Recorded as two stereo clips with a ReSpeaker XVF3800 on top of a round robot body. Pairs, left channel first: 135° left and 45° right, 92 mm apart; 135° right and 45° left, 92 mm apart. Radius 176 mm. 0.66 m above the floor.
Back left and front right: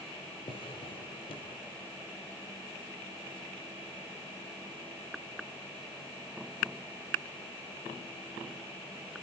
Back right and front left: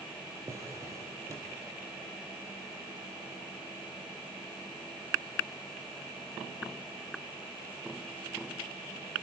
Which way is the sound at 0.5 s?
105° left.